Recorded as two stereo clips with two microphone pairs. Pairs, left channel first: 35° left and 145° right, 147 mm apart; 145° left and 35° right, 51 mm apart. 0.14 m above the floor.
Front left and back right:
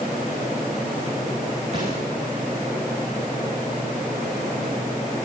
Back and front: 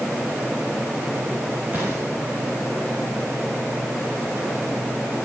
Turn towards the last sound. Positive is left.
turn(degrees=-100)